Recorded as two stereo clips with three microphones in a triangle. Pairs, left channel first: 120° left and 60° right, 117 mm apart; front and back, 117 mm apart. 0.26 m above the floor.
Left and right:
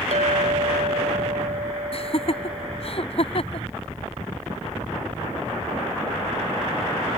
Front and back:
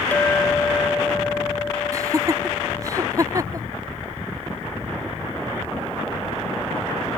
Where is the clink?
75° right.